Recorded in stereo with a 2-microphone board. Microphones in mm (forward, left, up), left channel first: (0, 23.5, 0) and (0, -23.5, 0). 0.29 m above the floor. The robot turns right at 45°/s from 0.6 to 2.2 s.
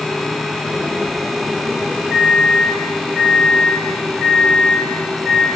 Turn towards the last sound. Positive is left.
turn(degrees=5)  # may be behind; listen again after turning